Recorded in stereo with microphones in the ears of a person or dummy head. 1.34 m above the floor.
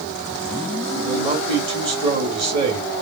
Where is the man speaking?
30° right (ahead or behind), 1.7 m.